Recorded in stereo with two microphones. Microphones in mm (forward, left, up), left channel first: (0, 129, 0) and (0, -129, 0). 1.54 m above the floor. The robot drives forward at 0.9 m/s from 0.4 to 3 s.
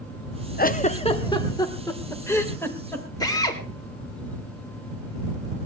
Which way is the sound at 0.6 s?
40° left (ahead or behind).